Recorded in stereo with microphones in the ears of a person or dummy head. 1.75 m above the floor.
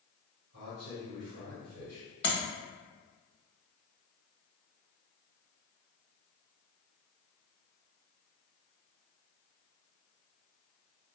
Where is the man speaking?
50° right (ahead or behind), 1.5 m.